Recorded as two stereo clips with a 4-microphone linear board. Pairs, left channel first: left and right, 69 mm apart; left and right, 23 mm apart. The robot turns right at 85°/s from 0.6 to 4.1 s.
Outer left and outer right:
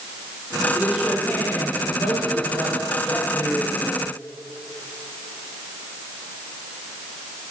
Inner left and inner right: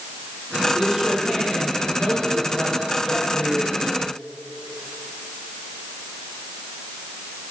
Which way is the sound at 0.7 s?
30° right.